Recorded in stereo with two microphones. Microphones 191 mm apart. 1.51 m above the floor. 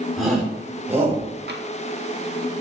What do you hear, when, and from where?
0.2 s a shout: centre (ahead or behind), 4.5 m; by 1.2 s 15° right (ahead or behind), 5 m
1.5 s tapping: 60° right (ahead or behind), 2.0 m